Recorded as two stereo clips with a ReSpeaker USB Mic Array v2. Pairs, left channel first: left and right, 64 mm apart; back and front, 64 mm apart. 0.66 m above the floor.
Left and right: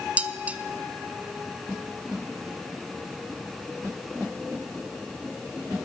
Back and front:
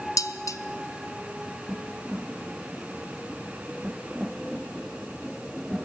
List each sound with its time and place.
0.2 s dishes clattering: 155° right, 0.7 m